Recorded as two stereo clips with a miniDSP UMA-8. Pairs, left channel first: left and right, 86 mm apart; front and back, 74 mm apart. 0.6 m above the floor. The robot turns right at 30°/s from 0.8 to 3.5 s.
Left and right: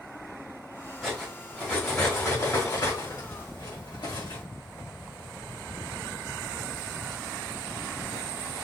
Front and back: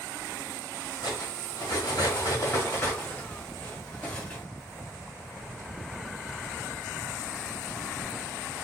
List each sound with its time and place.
1.0 s cutlery clinking: straight ahead, 2.5 m; by 4.4 s 75° left, 2.5 m